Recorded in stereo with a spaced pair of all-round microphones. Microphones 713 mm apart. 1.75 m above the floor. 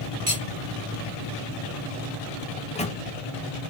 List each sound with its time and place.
0.3 s cutlery clinking: 25° right (ahead or behind), 0.9 m
2.6 s a microwave: 10° left (ahead or behind), 0.7 m